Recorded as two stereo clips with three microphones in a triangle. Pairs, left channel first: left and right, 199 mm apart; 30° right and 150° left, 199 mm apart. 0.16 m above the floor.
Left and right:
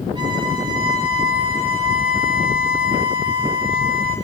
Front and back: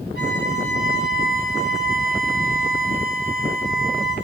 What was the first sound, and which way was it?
A violin, 20° right.